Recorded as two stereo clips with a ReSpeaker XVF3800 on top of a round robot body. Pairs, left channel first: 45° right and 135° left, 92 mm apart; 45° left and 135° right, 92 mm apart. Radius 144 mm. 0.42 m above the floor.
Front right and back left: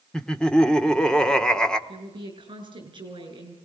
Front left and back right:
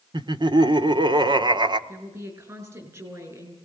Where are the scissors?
No scissors in this recording.